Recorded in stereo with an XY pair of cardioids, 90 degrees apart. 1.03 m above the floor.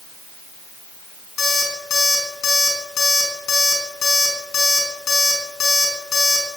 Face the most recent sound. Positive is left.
turn(degrees=65)